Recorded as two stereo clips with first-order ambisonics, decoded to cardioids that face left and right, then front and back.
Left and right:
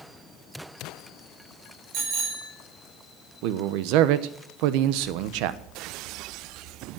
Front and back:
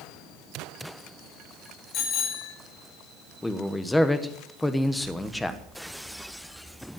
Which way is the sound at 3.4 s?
85° right.